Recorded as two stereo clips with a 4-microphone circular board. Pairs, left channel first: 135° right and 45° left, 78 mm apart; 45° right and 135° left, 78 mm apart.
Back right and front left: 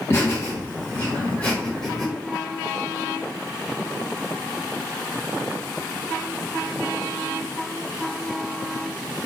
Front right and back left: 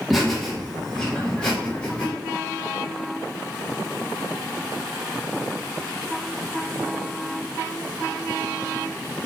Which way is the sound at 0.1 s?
135° right.